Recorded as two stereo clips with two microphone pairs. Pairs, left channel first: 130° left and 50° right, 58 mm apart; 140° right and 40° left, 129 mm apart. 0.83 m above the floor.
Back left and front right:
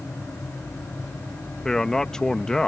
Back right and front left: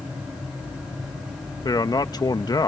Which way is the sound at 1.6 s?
155° right.